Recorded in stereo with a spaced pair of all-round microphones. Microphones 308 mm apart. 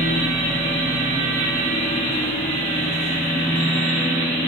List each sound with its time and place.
0.0 s a machine running: 20° left (ahead or behind), 1.4 m